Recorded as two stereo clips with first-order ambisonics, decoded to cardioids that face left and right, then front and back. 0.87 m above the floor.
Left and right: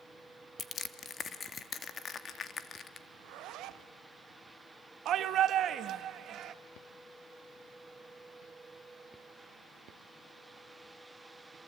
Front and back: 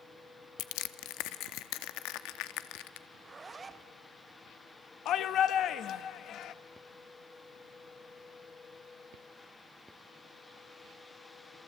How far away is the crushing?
About 0.9 m.